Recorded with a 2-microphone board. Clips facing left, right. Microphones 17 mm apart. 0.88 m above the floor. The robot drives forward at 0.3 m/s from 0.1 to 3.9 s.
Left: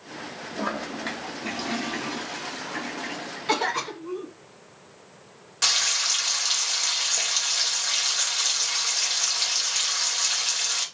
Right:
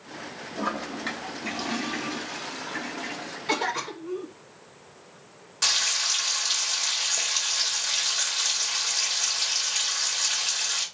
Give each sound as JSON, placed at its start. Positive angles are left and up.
{"t": 0.6, "sound": "a toilet flushing", "side_deg": 0, "distance_m": 0.7}
{"t": 3.5, "sound": "a cough", "side_deg": 10, "distance_m": 1.2}
{"t": 5.6, "sound": "frying", "side_deg": 10, "distance_m": 1.5}